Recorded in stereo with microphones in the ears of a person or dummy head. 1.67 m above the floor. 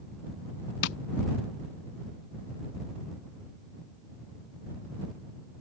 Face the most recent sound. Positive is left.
turn(degrees=55)  # may be behind; listen again after turning